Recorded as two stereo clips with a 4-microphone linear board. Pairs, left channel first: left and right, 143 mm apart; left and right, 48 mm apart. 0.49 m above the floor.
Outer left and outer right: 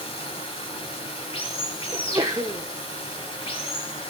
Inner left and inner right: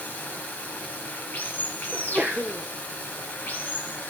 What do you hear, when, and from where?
0.0 s running water: 40° left (ahead or behind), 1.4 m
1.9 s a sneeze: 25° right (ahead or behind), 1.0 m